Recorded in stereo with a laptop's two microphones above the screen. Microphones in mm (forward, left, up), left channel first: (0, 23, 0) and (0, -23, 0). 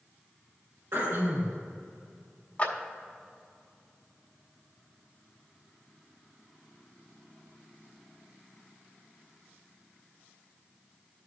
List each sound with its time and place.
0.9 s throat clearing: 65° right (ahead or behind), 1.9 m
2.6 s a clap: 40° left (ahead or behind), 1.9 m